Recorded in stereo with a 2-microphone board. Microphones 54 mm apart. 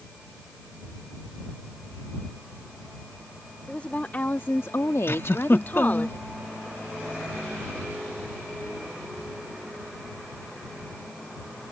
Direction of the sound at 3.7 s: 25° left (ahead or behind).